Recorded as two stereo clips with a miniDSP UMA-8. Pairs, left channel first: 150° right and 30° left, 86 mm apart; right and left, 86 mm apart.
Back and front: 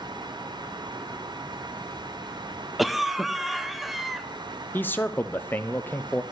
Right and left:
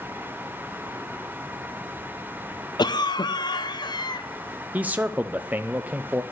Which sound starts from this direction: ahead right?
A cough, at 2.8 s.